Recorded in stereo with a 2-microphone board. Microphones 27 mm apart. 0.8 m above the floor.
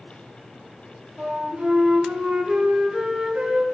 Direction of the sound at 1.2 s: 50° right (ahead or behind).